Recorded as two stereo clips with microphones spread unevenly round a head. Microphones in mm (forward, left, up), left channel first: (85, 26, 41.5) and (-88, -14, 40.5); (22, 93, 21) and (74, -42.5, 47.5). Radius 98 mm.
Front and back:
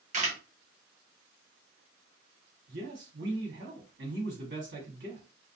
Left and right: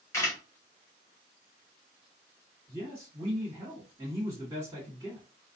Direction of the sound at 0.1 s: 165° left.